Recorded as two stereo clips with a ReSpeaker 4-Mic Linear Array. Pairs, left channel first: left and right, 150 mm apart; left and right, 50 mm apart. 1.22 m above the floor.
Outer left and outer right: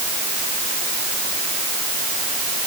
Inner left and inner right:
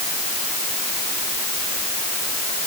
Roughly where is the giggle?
I don't hear a giggle.